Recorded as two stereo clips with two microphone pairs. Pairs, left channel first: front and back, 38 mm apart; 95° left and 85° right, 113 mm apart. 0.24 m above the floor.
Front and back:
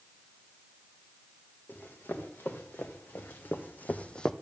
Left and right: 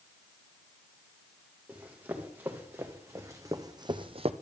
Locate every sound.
1.7 s running footsteps: 10° right, 2.5 m; by 4.3 s 70° right, 0.6 m